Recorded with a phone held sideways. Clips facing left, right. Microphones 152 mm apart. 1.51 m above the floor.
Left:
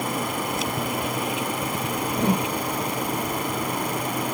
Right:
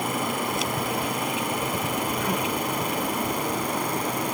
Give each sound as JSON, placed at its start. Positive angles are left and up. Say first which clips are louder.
{"t": 2.2, "sound": "a whoosh", "louder": "left 4 dB", "side_deg": 30}